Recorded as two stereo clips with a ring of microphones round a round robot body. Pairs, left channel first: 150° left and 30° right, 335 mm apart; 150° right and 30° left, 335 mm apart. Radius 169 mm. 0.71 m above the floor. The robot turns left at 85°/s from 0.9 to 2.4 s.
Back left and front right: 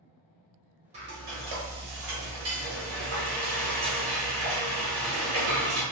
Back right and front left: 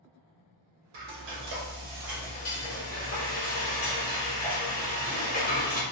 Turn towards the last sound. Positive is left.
turn(degrees=-80)